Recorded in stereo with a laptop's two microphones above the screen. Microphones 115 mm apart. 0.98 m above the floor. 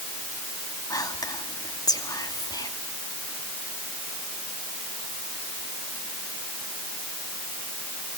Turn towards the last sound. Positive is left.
turn(degrees=35)  # may be behind; listen again after turning